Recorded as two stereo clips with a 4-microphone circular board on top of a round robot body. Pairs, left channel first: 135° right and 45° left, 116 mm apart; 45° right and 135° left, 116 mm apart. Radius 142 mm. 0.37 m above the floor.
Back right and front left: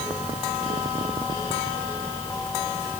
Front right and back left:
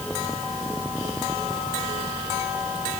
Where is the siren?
No siren in this recording.